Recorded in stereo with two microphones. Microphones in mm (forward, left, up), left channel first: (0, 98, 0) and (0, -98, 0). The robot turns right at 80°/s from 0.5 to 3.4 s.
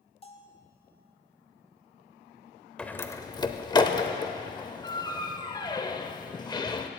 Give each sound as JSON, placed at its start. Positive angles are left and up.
{"t": 0.2, "sound": "a bell", "side_deg": 30, "distance_m": 0.7}
{"t": 2.8, "sound": "a door slam", "side_deg": 5, "distance_m": 0.5}